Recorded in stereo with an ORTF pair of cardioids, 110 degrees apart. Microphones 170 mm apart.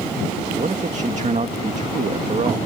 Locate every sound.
0.6 s a man speaking: 45° right